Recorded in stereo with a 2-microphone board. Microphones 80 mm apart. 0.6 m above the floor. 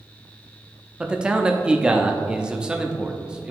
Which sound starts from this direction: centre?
A man speaking, at 1.0 s.